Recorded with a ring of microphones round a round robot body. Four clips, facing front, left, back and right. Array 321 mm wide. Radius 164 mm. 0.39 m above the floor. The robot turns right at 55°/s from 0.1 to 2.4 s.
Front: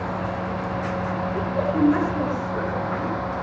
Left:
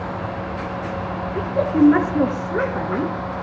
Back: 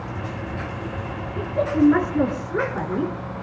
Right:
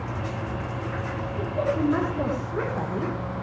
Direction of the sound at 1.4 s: 70° left.